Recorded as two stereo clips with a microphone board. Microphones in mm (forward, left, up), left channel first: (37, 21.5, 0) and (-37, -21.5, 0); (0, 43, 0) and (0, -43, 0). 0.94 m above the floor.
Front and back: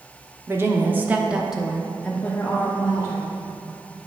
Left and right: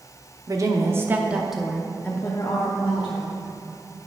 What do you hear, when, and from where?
0.5 s a woman speaking: 100° right, 1.0 m; by 3.3 s 85° left, 1.3 m